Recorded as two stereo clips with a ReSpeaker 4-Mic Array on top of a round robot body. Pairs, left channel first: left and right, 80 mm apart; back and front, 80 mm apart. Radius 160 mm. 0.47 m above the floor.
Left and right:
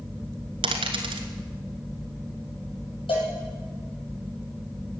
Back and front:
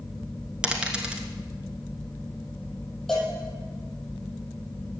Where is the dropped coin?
80° right, 1.0 m.